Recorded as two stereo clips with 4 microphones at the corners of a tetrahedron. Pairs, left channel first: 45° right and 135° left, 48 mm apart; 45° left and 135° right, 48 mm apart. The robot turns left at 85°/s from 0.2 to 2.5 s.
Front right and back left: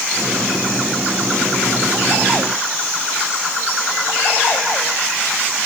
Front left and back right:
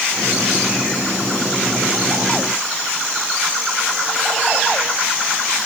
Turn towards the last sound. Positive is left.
No sound to turn to.